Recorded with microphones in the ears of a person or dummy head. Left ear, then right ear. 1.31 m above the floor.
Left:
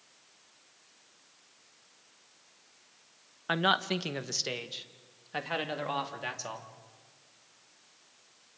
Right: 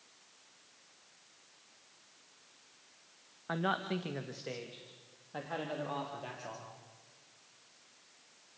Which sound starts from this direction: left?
A man speaking, at 3.5 s.